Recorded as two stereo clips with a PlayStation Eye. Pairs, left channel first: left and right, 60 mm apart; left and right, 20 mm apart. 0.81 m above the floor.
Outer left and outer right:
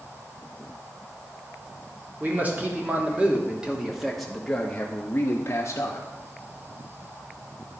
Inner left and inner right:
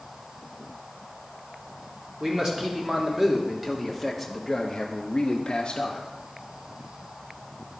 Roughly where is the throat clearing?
I don't hear throat clearing.